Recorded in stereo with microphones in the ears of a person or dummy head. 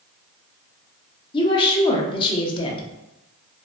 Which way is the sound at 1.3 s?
20° left (ahead or behind).